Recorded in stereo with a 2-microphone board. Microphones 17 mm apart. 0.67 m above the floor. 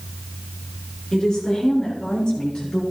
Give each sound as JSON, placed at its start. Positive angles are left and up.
{"t": 1.1, "sound": "a woman speaking", "side_deg": 40, "distance_m": 7.0}